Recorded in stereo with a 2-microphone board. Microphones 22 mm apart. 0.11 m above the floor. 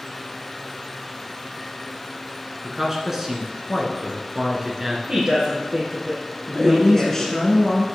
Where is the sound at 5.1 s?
30° right (ahead or behind), 2.5 m.